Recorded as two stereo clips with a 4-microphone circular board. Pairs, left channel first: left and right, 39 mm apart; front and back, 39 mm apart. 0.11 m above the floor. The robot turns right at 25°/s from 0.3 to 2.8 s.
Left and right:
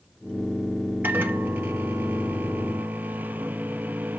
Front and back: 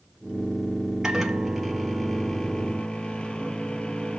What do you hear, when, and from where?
1.0 s a microwave: 110° right, 1.6 m; by 4.2 s 65° right, 1.6 m